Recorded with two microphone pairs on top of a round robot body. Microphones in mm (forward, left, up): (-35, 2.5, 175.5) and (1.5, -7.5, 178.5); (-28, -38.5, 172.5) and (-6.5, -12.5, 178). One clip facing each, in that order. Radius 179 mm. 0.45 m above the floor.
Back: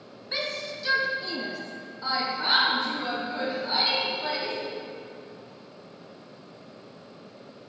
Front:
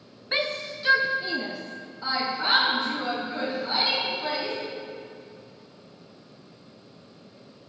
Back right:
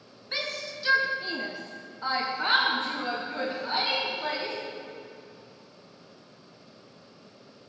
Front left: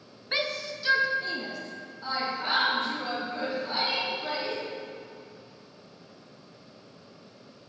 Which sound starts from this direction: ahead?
A shout, at 0.3 s.